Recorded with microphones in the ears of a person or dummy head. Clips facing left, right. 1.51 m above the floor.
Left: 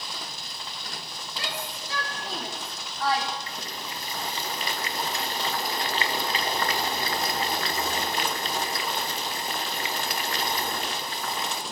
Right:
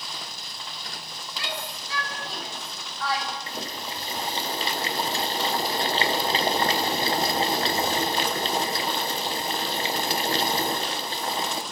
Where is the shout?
35° left (ahead or behind), 4 m.